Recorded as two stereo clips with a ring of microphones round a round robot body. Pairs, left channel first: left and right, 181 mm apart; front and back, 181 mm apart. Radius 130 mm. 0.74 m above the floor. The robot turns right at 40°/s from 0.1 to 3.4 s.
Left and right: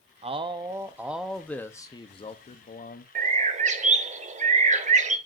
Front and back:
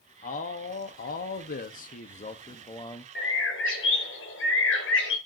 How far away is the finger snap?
I don't hear a finger snap.